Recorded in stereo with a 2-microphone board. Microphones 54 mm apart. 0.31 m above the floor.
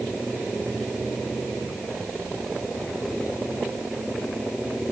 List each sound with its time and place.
Only background noise.